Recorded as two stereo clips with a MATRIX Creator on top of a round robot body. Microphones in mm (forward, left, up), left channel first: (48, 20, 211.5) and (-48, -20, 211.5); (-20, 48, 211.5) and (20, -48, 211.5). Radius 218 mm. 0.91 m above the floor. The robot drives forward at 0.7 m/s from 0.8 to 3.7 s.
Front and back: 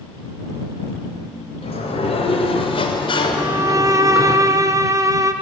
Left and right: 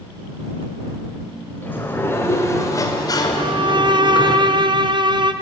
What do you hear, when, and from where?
1.6 s a sliding door: 40° left, 2.5 m; by 4.4 s 70° left, 1.8 m
3.4 s a violin: 90° right, 1.3 m; by 5.3 s 100° right, 1.3 m